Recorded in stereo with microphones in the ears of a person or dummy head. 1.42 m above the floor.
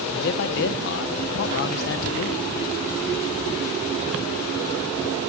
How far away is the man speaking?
About 0.9 m.